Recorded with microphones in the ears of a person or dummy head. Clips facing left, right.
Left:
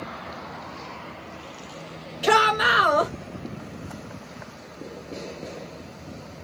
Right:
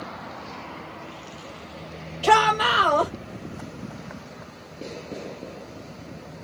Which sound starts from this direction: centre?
A shout, at 2.2 s.